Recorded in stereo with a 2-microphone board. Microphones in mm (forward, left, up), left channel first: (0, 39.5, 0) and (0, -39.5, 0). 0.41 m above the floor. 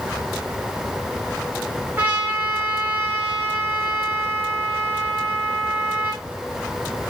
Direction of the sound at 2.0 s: 20° right (ahead or behind).